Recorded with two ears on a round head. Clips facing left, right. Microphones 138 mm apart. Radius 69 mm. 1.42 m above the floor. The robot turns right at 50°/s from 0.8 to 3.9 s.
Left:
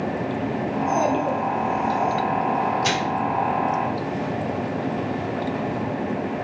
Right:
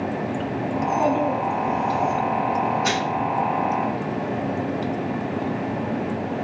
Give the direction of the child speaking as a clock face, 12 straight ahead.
8 o'clock.